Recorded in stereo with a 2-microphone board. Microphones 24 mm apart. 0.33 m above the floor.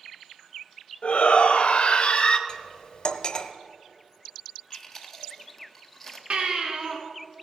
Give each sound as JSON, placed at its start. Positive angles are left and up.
{"t": 1.0, "sound": "a shout", "side_deg": 55, "distance_m": 1.7}
{"t": 2.5, "sound": "cutlery clinking", "side_deg": 40, "distance_m": 0.9}
{"t": 4.7, "sound": "chewing", "side_deg": 10, "distance_m": 1.4}
{"t": 6.3, "sound": "a baby crying", "side_deg": -70, "distance_m": 2.0}